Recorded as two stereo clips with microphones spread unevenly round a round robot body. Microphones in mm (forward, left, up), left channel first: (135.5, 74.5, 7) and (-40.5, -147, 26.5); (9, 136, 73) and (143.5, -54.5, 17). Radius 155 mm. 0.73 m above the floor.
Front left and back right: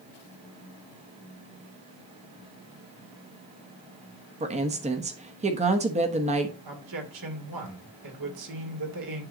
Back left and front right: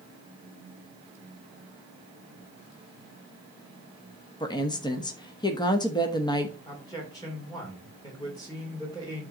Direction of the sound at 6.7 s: 155° right.